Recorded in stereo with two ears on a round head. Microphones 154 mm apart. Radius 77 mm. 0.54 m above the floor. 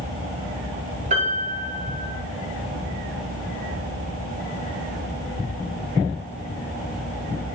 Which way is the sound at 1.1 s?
45° right (ahead or behind).